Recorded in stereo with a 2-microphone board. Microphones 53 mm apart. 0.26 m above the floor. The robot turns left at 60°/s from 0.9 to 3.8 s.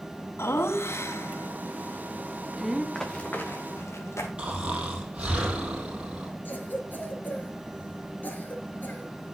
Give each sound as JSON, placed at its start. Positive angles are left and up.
{"t": 0.4, "sound": "laughter", "side_deg": 55, "distance_m": 1.9}
{"t": 3.0, "sound": "running footsteps", "side_deg": 5, "distance_m": 2.0}
{"t": 4.4, "sound": "snoring", "side_deg": -20, "distance_m": 4.0}
{"t": 6.5, "sound": "a cough", "side_deg": 40, "distance_m": 3.5}